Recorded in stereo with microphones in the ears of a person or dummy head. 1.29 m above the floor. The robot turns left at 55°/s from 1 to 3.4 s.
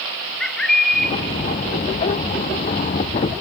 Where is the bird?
5° left (ahead or behind), 1.1 m; by 1.1 s 10° left (ahead or behind), 1.1 m.